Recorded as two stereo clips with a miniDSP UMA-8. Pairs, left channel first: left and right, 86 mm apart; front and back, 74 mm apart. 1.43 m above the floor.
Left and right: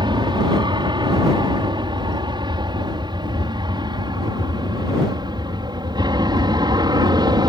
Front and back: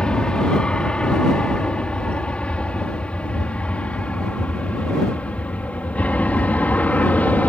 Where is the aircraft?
80° right; by 7.5 s 65° right.